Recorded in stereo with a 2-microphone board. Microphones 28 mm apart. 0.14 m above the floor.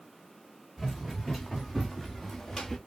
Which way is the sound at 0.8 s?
10° right (ahead or behind).